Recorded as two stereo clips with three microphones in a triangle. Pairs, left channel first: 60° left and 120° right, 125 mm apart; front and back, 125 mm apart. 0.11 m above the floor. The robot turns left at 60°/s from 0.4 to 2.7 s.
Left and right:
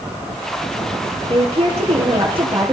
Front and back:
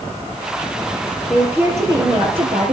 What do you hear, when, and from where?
1.3 s a woman speaking: 90° right, 2.5 m; by 2.8 s 175° right, 2.5 m